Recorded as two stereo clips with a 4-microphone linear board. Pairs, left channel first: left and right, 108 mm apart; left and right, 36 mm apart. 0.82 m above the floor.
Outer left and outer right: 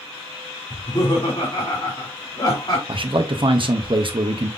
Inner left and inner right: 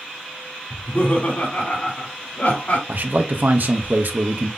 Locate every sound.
0.7 s laughter: 45° left (ahead or behind), 2.5 m
2.9 s a man speaking: 55° right (ahead or behind), 0.7 m